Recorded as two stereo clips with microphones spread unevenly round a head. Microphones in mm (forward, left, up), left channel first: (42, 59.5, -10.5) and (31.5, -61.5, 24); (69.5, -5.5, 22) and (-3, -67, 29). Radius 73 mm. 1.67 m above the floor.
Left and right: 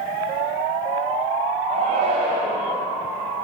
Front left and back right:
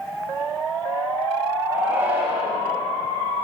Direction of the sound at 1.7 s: 75° right.